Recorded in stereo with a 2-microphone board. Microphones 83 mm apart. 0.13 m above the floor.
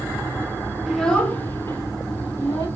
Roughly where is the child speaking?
Centre.